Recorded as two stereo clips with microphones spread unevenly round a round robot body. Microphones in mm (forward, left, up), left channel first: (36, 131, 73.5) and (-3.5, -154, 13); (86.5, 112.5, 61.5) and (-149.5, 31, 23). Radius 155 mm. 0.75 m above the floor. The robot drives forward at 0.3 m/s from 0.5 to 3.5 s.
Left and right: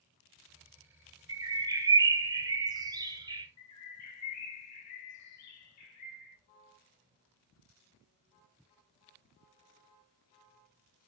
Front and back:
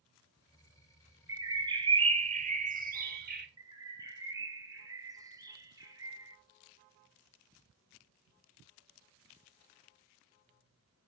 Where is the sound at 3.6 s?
120° left, 1.3 m.